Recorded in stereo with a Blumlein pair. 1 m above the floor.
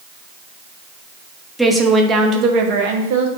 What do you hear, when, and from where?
1.6 s a woman speaking: straight ahead, 1.2 m; by 3.3 s 55° right, 1.6 m